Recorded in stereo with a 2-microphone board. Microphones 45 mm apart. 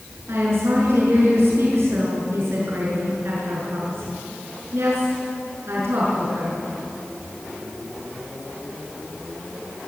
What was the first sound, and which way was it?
A woman speaking, 65° right (ahead or behind).